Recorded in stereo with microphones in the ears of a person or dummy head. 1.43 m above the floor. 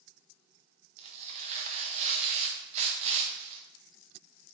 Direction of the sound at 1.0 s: 35° right (ahead or behind).